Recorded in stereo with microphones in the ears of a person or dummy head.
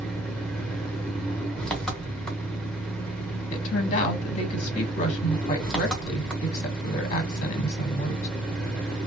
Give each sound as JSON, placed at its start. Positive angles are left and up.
{"t": 0.0, "sound": "an engine running", "side_deg": 5, "distance_m": 0.9}
{"t": 3.5, "sound": "a woman speaking", "side_deg": 40, "distance_m": 1.4}